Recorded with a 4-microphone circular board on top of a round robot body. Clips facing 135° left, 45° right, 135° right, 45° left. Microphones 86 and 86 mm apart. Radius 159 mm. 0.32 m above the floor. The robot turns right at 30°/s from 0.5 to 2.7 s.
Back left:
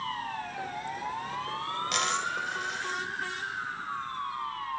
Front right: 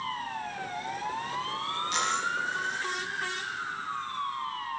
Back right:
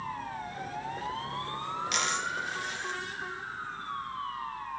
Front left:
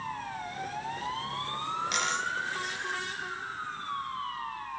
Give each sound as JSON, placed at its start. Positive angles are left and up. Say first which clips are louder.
{"t": 1.9, "sound": "a dropped coin", "louder": "front right 1 dB, front left 1 dB", "azimuth_deg": 135, "distance_m": 2.5}